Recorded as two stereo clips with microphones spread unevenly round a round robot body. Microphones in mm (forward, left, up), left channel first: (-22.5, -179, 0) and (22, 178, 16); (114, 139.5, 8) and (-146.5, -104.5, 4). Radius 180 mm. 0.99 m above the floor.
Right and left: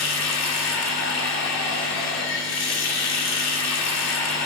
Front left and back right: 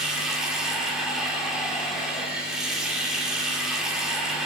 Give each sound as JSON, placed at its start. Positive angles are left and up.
{"t": 0.0, "sound": "running water", "azimuth_deg": -50, "distance_m": 2.5}